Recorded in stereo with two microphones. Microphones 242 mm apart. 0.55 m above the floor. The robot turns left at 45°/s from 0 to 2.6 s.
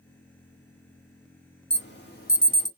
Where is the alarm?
50° left (ahead or behind), 1.8 m; by 2.7 s 30° left (ahead or behind), 1.8 m.